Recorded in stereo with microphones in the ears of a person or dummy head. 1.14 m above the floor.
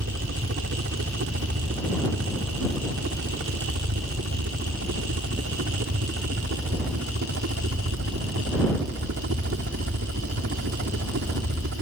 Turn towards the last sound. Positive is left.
turn(degrees=-65)  # may be behind; listen again after turning